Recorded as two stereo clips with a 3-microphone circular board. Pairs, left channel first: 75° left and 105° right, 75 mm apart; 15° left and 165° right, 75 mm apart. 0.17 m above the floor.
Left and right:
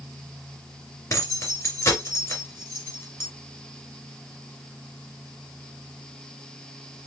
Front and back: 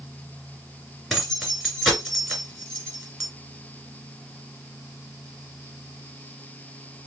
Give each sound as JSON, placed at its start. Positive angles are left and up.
{"t": 1.1, "sound": "keys jangling", "azimuth_deg": 105, "distance_m": 1.9}